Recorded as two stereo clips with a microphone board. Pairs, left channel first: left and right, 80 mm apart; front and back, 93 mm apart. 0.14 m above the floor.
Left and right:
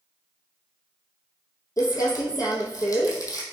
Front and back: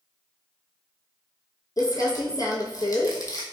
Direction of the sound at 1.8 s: 50° left.